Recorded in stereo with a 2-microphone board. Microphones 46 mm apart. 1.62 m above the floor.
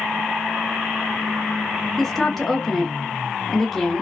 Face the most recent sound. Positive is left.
turn(degrees=5)  # may be behind; listen again after turning